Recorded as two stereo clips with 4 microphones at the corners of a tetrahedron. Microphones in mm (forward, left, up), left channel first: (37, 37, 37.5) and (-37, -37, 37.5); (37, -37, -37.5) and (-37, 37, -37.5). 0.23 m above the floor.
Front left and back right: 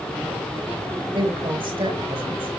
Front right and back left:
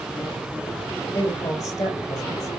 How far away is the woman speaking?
About 5 m.